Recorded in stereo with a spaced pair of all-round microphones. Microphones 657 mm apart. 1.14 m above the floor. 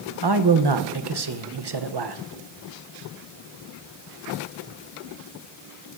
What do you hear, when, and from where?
0.2 s a man speaking: 40° right (ahead or behind), 0.7 m